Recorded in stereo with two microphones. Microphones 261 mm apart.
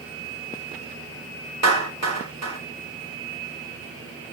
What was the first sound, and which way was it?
A clap, 85° right.